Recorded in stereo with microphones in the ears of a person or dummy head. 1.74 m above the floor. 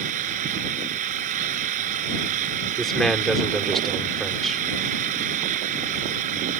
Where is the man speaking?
5° right (ahead or behind).